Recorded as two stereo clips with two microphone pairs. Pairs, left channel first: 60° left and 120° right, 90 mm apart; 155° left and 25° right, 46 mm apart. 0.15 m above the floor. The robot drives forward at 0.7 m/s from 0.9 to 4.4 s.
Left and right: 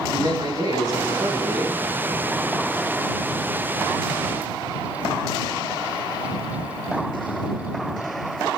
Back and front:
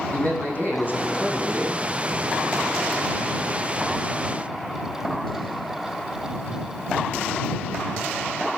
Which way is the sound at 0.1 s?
160° right.